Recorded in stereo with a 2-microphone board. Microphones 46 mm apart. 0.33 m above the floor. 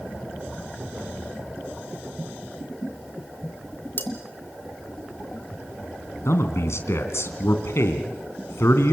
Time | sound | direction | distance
4.0 | cutlery clinking | 45° left (ahead or behind) | 2.5 m
6.2 | a man speaking | 70° left (ahead or behind) | 3 m